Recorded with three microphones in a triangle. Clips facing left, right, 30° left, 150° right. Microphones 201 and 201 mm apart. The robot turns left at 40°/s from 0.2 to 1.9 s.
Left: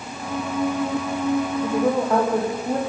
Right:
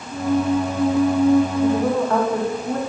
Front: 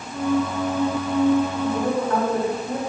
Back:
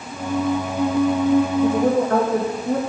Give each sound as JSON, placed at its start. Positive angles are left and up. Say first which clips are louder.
{"t": 1.6, "sound": "a woman speaking", "louder": "right 2 dB, back 5 dB", "azimuth_deg": 175, "distance_m": 3.0}